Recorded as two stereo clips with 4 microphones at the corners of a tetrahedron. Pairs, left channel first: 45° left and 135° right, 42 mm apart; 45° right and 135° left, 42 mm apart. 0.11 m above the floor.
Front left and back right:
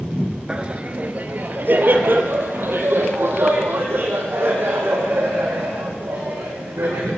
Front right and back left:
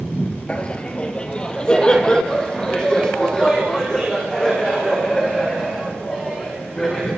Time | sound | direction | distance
0.5 | laughter | 85° right | 2 m